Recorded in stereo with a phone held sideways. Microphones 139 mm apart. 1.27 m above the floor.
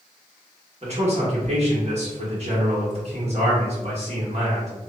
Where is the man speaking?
55° right (ahead or behind), 1.3 m.